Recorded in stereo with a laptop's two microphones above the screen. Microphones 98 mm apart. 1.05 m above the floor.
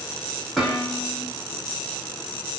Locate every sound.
0.6 s dishes clattering: centre (ahead or behind), 1.3 m